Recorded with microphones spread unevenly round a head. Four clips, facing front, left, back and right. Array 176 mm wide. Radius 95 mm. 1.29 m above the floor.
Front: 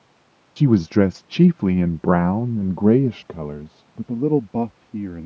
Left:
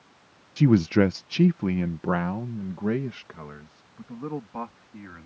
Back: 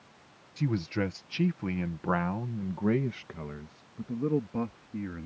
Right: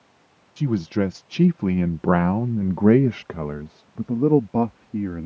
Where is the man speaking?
20° left; by 5.3 s 60° right.